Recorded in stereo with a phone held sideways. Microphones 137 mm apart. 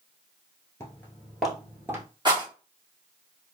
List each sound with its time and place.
0.8 s footsteps: 20° left (ahead or behind), 1.1 m; by 2.1 s 20° right (ahead or behind), 1.1 m
2.2 s a rattle: 35° right (ahead or behind), 1.2 m